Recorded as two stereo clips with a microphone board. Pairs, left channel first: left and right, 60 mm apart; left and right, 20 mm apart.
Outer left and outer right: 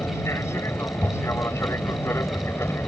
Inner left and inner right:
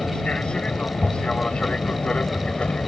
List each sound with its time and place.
0.0 s an aircraft: 50° left (ahead or behind); by 2.9 s 45° left (ahead or behind)